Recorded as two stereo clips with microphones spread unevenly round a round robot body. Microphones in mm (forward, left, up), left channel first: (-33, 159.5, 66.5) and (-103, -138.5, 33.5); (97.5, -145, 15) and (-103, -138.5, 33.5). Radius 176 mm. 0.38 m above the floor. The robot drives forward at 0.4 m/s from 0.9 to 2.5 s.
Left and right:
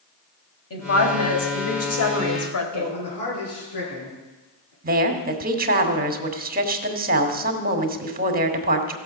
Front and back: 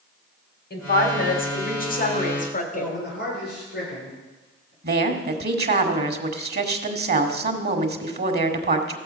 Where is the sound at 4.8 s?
155° right, 1.6 m.